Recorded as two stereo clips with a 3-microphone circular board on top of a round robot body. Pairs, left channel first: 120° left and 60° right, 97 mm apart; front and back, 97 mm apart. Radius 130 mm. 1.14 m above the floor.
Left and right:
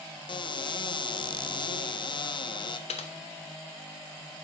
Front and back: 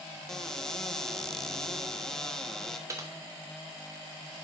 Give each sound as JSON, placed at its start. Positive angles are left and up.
{"t": 0.3, "sound": "a cupboard door", "azimuth_deg": 85, "distance_m": 0.8}
{"t": 2.9, "sound": "typing on a keyboard", "azimuth_deg": 120, "distance_m": 0.9}